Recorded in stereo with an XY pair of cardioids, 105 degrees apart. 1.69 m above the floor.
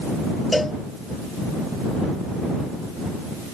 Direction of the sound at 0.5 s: 10° left.